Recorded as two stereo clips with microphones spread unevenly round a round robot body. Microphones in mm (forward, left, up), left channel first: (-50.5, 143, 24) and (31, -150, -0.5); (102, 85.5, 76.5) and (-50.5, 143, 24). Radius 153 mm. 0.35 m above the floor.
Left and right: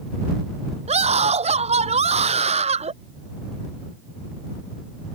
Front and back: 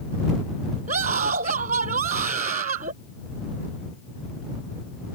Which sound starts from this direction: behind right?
A scream, at 0.9 s.